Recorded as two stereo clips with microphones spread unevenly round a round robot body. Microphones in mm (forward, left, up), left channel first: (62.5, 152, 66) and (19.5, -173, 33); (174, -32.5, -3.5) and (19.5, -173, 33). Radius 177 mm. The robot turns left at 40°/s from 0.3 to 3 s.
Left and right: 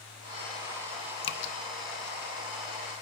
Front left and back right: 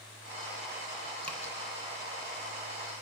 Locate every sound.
1.2 s dripping: 95° left, 0.6 m; by 1.5 s 85° left, 0.6 m